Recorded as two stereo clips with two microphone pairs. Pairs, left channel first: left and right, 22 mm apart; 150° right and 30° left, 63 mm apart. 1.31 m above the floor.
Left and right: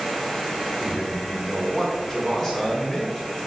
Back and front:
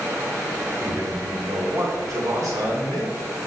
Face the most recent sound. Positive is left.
turn(degrees=0)